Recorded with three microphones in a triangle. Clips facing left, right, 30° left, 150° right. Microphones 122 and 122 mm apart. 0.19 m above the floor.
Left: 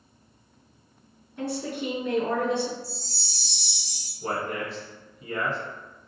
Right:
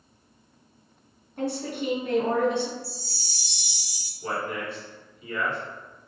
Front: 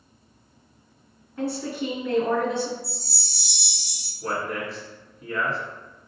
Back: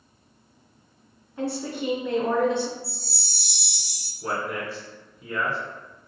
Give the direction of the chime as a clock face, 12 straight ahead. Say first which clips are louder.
Even, front 1 dB; 6 o'clock.